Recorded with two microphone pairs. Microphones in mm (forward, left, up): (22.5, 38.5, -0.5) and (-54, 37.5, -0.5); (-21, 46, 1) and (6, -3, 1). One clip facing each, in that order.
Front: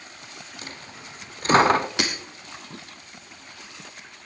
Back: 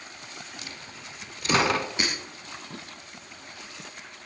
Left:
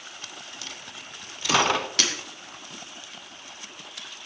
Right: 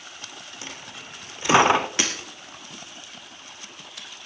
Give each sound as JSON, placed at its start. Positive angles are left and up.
{"t": 0.6, "sound": "a dropped coin", "azimuth_deg": -5, "distance_m": 0.6}
{"t": 2.0, "sound": "breaking glass", "azimuth_deg": 10, "distance_m": 3.0}